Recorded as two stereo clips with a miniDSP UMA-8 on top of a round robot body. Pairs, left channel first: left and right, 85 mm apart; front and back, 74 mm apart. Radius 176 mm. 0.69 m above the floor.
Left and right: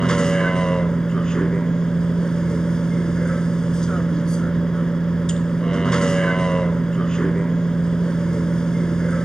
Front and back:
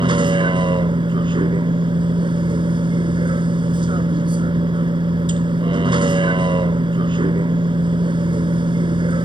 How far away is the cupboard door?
No cupboard door in this recording.